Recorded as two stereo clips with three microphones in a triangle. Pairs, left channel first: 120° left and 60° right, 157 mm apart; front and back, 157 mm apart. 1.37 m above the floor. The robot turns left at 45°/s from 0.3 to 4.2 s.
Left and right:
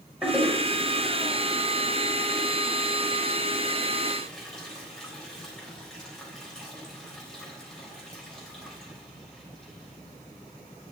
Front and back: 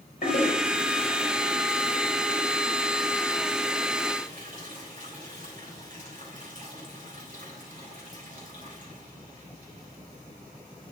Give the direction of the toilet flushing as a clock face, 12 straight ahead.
11 o'clock.